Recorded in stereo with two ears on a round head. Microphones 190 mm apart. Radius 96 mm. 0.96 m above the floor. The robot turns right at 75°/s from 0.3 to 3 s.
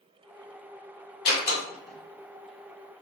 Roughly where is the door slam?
Left.